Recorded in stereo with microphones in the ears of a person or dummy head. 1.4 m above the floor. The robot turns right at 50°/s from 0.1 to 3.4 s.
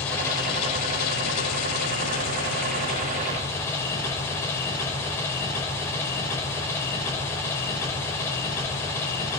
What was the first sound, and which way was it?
An engine running, 5° left.